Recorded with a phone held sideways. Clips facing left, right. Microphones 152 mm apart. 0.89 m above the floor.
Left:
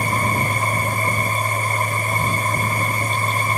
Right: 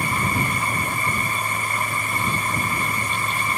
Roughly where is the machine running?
Left.